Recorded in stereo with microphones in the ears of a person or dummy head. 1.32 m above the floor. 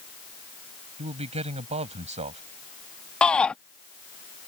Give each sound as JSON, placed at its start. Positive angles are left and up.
{"t": 1.0, "sound": "a man speaking", "side_deg": -30}
{"t": 3.2, "sound": "a shout", "side_deg": 10}